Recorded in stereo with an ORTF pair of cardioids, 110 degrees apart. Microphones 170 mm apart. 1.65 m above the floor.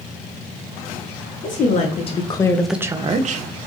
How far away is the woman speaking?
About 1.1 m.